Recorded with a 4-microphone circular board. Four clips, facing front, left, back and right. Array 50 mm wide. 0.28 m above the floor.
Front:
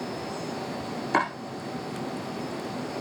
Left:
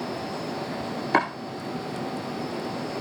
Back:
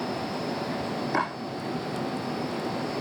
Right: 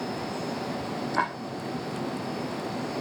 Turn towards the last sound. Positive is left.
turn(degrees=65)